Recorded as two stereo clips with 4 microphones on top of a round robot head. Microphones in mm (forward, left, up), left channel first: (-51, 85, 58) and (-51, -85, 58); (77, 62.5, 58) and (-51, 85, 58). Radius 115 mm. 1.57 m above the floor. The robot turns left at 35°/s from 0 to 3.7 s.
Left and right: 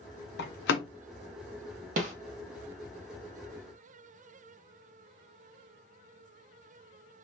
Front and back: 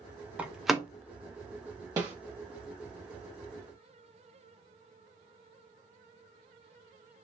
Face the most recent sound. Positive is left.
turn(degrees=180)